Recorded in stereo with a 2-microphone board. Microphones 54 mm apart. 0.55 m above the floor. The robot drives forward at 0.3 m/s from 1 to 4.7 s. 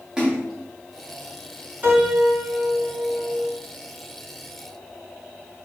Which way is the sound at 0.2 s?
15° right (ahead or behind).